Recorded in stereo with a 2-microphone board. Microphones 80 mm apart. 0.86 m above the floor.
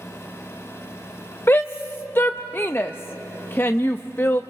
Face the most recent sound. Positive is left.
turn(degrees=30)  # may be behind; listen again after turning